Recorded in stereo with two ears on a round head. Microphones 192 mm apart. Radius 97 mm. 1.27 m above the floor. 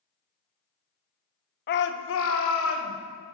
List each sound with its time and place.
1.7 s a shout: 50° left (ahead or behind), 0.6 m; by 2.9 s 90° left, 1.6 m